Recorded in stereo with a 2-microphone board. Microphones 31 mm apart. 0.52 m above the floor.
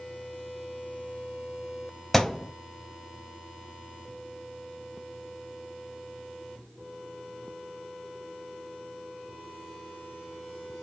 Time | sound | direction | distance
2.1 | a thud | 10° left (ahead or behind) | 0.5 m